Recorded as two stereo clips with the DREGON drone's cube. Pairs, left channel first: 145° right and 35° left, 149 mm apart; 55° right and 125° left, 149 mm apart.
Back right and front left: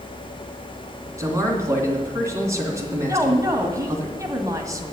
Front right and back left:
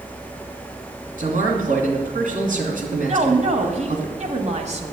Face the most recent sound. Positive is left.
turn(degrees=100)